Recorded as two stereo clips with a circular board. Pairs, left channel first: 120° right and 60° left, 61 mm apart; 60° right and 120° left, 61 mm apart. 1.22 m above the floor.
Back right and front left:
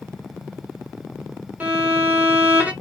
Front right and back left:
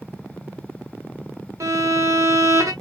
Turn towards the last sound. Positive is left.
turn(degrees=120)